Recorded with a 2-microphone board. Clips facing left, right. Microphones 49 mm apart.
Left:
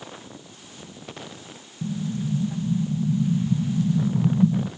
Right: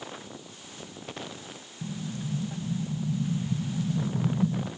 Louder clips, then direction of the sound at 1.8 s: Left 7 dB; 25° left (ahead or behind).